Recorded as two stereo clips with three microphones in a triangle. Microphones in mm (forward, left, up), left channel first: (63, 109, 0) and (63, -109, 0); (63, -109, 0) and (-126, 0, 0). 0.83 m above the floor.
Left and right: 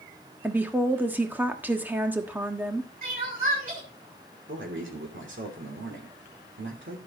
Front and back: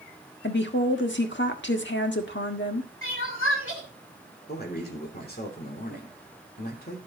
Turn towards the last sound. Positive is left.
turn(degrees=-70)